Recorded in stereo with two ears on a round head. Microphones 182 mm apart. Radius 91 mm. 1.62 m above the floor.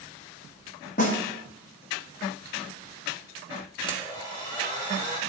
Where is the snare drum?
40° left (ahead or behind), 1.1 m.